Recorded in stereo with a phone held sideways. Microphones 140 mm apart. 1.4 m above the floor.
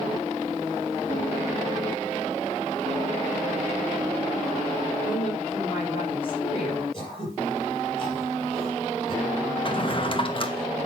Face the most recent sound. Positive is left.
turn(degrees=40)  # may be behind; listen again after turning